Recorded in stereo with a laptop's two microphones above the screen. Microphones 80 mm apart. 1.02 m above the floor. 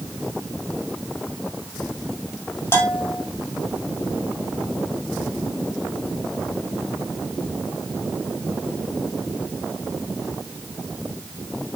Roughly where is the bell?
Left.